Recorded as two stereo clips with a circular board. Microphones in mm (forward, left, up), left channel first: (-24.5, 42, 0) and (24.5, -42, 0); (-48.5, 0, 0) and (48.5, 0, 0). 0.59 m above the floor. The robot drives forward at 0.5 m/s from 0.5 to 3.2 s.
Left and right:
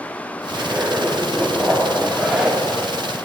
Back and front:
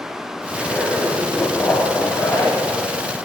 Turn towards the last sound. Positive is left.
turn(degrees=-150)